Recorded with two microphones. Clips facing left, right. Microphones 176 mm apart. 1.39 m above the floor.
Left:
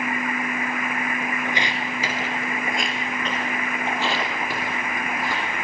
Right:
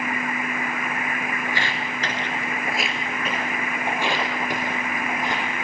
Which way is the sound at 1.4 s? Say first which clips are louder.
Left 1 dB; 20° left (ahead or behind).